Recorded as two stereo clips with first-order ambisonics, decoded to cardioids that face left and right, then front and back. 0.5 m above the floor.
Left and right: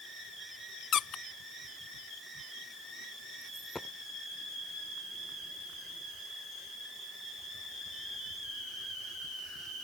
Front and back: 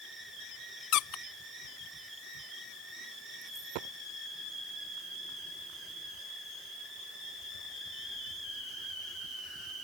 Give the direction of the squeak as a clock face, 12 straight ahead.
11 o'clock.